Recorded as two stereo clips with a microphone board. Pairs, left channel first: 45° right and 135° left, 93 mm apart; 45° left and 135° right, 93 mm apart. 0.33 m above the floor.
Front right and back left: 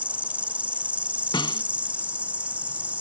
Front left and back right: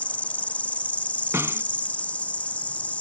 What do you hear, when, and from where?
0.0 s an insect: 90° left
1.3 s a snare drum: 75° right